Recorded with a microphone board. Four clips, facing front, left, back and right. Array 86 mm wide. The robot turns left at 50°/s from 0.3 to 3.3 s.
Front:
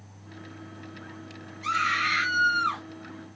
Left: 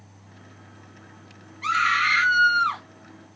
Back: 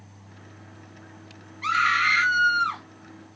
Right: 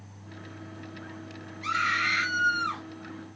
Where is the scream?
140° left, 2 m; by 2.8 s 80° left, 2 m.